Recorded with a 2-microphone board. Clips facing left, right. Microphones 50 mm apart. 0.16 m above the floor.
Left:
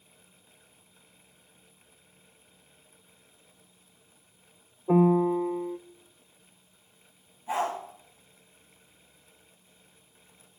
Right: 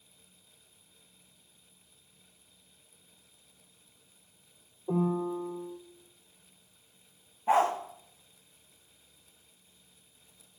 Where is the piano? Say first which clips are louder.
Left 8 dB; 70° left (ahead or behind), 0.6 m.